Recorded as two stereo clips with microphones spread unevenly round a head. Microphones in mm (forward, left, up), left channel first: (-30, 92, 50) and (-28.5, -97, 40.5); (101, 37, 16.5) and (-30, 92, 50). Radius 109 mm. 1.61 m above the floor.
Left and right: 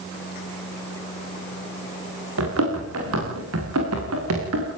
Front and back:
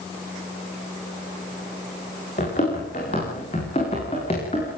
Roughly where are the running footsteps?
Right.